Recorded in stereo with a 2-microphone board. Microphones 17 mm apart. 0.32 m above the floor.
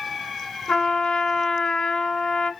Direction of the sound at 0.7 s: 65° left (ahead or behind).